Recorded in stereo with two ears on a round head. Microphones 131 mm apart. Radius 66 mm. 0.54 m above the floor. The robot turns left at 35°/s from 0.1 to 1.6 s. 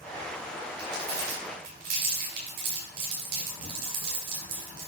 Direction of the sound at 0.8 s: 30° right (ahead or behind).